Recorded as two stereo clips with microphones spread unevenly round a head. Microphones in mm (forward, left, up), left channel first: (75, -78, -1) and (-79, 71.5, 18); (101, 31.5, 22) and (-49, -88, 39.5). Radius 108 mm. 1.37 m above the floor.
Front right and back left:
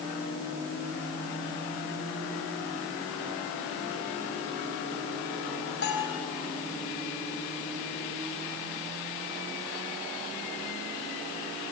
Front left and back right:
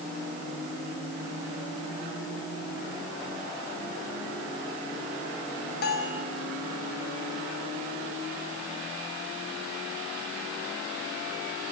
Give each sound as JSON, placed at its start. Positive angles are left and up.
{"t": 5.8, "sound": "a bell", "azimuth_deg": 0, "distance_m": 4.5}